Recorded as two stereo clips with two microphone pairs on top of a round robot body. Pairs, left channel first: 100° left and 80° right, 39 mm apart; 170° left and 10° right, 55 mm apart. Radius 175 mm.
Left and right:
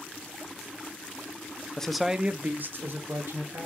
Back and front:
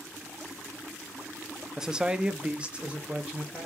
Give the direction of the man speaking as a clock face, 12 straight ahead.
10 o'clock.